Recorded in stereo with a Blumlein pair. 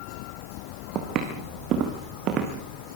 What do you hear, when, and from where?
0.9 s footsteps: 35° right, 5 m